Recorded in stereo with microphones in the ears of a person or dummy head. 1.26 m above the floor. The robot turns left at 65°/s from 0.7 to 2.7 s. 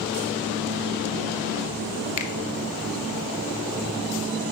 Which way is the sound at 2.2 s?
40° left (ahead or behind).